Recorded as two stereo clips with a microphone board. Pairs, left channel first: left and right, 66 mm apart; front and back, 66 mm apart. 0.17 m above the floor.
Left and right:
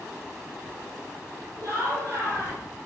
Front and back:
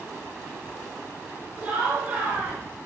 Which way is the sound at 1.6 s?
120° right.